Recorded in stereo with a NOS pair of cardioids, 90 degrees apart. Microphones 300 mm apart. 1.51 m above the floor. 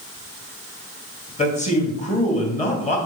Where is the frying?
I don't hear frying.